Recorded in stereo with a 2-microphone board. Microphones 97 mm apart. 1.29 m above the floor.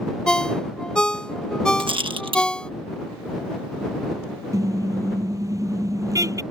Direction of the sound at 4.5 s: 35° right (ahead or behind).